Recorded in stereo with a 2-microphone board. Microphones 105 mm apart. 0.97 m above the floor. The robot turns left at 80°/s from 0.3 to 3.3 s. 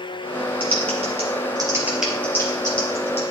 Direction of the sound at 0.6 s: 60° right (ahead or behind).